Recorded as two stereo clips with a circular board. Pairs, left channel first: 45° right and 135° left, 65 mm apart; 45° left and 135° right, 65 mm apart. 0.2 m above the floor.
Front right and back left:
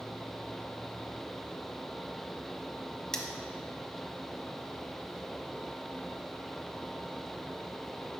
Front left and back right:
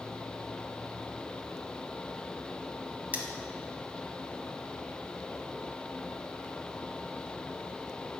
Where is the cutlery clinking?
115° right, 0.7 m.